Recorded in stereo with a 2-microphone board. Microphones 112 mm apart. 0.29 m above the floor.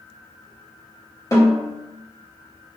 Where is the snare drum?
30° left (ahead or behind), 1.2 m.